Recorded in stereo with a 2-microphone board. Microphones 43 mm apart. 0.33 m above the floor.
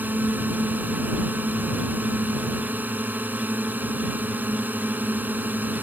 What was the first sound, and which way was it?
A drone, 50° right (ahead or behind).